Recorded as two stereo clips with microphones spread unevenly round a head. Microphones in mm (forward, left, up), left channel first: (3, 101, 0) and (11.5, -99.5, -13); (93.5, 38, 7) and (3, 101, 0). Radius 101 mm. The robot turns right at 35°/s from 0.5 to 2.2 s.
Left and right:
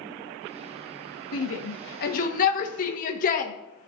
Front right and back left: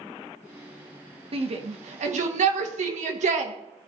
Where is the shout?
115° left, 1.1 m; by 3.5 s 145° left, 1.1 m.